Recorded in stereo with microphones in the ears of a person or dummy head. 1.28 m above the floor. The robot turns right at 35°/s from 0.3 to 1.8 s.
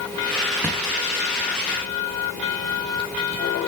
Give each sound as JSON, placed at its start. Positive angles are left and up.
{"t": 0.6, "sound": "a thud", "side_deg": -5, "distance_m": 0.8}